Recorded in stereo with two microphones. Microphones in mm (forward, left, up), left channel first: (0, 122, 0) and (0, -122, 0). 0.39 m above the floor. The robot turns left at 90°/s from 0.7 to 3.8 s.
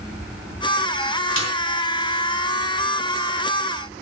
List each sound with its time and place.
1.4 s a snare drum: 60° left (ahead or behind), 4 m; by 1.5 s 50° left (ahead or behind), 4 m